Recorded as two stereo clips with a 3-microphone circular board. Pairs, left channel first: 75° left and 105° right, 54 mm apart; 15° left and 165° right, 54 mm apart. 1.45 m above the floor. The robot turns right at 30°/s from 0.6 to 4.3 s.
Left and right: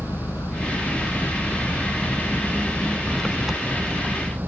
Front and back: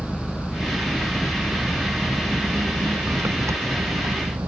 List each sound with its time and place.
0.0 s an engine running: 85° left; by 4.5 s 160° right